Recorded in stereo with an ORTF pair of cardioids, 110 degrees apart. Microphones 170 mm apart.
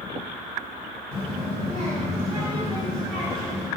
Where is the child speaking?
40° left, 1.6 m; by 3.7 s 15° right, 1.6 m.